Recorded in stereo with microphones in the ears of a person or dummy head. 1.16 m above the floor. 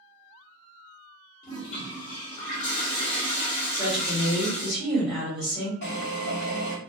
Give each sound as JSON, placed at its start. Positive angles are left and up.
{"t": 1.4, "sound": "a toilet flushing", "side_deg": 40, "distance_m": 0.9}
{"t": 3.7, "sound": "a woman speaking", "side_deg": 5, "distance_m": 1.3}
{"t": 5.8, "sound": "a drill", "side_deg": 50, "distance_m": 1.2}